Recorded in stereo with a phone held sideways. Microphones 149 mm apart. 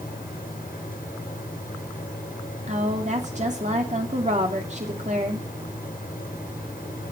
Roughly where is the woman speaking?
Right.